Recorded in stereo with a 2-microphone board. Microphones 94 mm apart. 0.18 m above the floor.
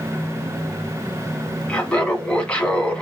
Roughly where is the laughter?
Centre.